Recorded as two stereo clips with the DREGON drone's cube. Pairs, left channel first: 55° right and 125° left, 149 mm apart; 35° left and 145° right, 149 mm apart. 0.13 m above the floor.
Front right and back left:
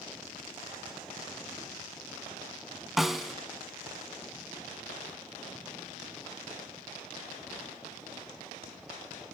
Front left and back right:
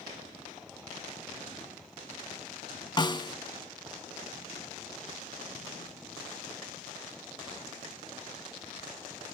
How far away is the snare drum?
About 1.0 m.